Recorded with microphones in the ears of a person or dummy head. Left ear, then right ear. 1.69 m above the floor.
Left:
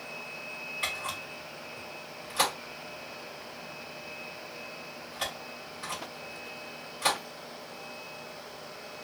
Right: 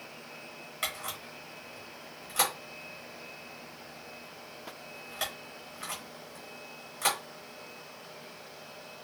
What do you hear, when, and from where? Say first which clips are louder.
0.8 s a camera shutter: left 1 dB; 30° right (ahead or behind), 1.1 m